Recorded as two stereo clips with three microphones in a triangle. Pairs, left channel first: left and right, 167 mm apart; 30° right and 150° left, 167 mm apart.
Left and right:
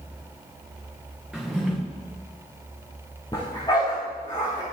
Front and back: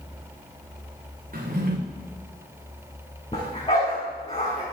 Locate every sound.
1.3 s a drawer: 175° right, 3 m
3.3 s a dog barking: 25° left, 5.5 m